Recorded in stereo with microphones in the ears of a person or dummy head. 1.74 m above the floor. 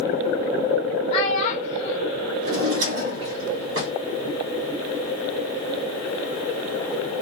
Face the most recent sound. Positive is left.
turn(degrees=-60)  # may be behind; listen again after turning